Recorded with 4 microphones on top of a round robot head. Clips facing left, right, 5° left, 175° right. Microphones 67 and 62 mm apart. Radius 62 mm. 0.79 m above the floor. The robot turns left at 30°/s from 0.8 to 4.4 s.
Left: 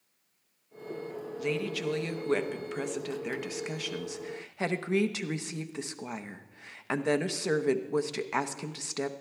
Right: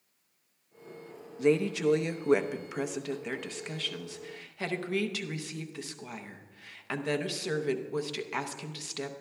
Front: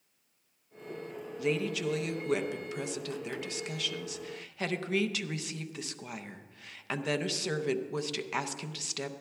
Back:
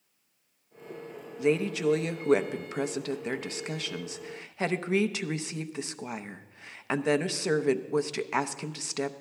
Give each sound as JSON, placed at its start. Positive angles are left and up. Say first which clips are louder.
{"t": 1.4, "sound": "a woman speaking", "louder": "right 7 dB, back 5 dB", "azimuth_deg": -130, "distance_m": 0.7}